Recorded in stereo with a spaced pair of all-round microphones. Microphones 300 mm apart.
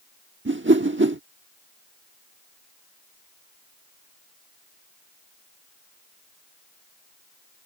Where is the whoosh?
40° right (ahead or behind).